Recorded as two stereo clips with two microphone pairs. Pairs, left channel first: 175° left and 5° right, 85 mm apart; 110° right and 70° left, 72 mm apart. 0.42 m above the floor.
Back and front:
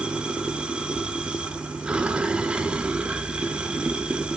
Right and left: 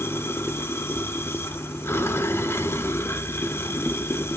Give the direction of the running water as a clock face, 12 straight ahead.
3 o'clock.